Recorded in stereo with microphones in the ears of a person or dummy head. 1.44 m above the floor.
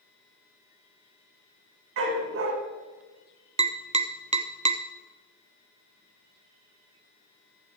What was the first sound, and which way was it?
A dog barking, 65° right (ahead or behind).